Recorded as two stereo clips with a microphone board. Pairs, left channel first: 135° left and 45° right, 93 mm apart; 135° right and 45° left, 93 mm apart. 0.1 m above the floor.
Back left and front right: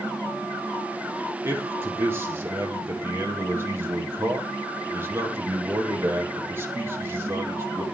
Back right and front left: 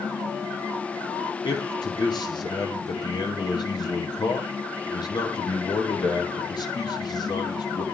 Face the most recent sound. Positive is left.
turn(degrees=-105)